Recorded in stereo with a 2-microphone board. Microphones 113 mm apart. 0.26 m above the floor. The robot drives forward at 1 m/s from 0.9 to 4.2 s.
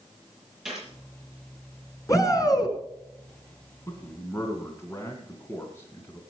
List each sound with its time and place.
0.7 s a gunshot: 5° right (ahead or behind), 7 m
2.1 s a shout: 30° left (ahead or behind), 3.5 m; by 2.8 s 35° left (ahead or behind), 3 m
3.9 s a man speaking: 25° left (ahead or behind), 2.5 m; by 6.2 s 20° left (ahead or behind), 2.5 m